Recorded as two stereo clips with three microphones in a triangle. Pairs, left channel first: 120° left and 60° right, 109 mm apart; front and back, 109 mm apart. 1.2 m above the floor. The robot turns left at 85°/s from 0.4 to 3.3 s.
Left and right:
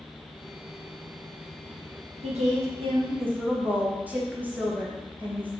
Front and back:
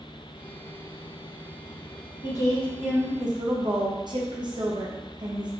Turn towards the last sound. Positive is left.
turn(degrees=-135)